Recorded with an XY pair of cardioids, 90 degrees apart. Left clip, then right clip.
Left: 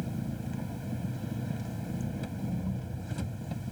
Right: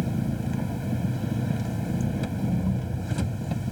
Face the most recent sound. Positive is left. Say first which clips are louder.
# right 8 dB
turn(degrees=-60)